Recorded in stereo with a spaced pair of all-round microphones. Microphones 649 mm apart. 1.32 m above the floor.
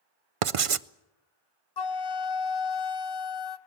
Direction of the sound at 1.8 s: 40° left (ahead or behind).